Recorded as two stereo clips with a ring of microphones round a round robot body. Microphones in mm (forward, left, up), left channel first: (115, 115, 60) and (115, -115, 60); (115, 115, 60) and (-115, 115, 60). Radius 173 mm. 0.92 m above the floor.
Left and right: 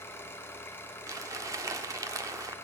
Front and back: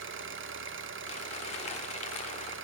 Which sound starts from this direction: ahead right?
Crumpling, at 1.1 s.